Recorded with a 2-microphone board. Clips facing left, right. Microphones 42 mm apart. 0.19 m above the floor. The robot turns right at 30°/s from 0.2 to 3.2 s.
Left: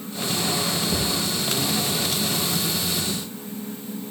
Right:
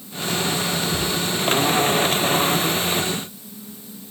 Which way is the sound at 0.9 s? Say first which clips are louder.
Right 1 dB; 65° left (ahead or behind).